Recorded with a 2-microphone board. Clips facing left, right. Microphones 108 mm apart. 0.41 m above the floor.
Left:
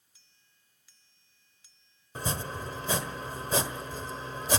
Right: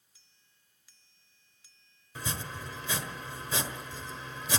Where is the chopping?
40° left (ahead or behind), 1.4 m.